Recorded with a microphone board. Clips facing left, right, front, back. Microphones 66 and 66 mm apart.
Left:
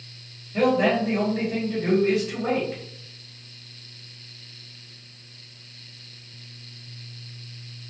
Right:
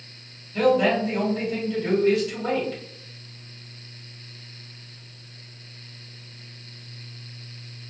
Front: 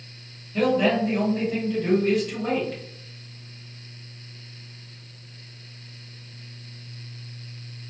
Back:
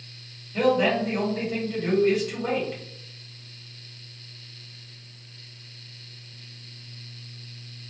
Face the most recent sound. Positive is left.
turn(degrees=105)